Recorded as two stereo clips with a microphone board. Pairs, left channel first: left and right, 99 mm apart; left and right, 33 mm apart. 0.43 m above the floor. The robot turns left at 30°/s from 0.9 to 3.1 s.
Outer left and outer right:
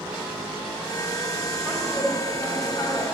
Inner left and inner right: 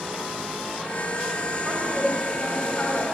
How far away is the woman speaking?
About 3 m.